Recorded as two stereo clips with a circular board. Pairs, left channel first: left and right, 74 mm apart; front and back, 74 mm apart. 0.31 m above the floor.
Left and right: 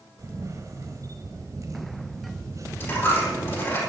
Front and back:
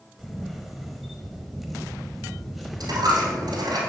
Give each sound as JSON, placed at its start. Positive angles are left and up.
{"t": 0.2, "sound": "a camera shutter", "azimuth_deg": -90, "distance_m": 1.2}
{"t": 2.8, "sound": "a dropped coin", "azimuth_deg": 150, "distance_m": 4.0}